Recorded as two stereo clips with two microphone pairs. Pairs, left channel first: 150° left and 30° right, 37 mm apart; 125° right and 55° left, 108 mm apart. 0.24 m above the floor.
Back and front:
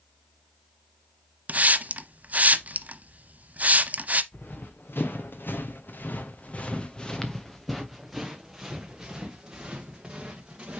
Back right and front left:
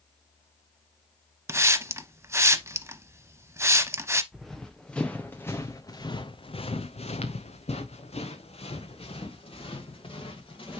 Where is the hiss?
5° right, 0.6 m.